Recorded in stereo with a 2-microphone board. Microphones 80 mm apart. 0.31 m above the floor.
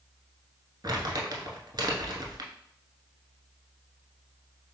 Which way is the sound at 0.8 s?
60° right (ahead or behind).